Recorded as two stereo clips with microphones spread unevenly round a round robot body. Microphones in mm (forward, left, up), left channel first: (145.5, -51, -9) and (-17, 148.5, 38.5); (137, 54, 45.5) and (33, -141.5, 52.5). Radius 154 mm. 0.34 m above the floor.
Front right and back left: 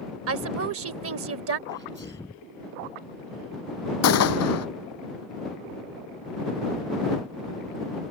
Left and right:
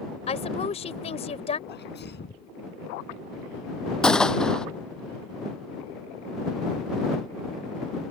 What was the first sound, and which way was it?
A woman speaking, 115° left.